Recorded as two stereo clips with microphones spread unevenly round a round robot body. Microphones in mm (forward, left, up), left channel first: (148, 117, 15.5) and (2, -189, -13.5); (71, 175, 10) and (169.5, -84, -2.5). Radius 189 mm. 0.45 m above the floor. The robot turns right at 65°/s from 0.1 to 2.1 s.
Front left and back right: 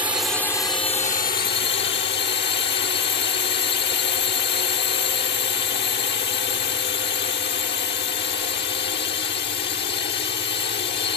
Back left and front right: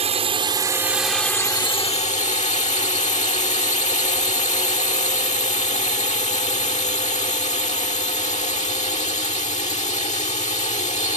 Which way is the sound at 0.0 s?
45° right.